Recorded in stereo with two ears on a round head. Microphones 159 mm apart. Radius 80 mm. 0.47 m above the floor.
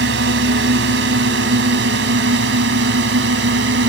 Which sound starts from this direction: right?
A drone, at 0.0 s.